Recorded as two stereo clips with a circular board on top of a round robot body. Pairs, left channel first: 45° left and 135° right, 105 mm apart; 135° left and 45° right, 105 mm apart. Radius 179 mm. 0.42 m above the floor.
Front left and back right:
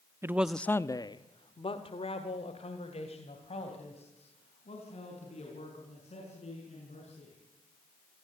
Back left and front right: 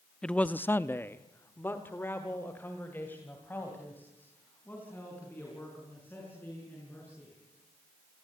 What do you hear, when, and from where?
0.2 s a man speaking: 155° right, 0.8 m; by 7.3 s 60° left, 7 m